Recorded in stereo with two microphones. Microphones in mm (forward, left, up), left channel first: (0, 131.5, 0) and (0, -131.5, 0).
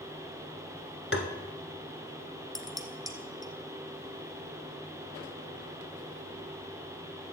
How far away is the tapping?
About 1.3 m.